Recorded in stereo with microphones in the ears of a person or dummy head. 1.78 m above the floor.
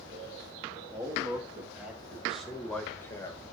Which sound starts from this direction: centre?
A man speaking, at 0.9 s.